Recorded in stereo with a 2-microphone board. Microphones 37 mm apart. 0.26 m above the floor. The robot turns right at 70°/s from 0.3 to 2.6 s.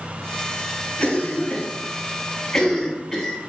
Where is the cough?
35° left (ahead or behind), 1.2 m; by 3.4 s 10° left (ahead or behind), 1.2 m.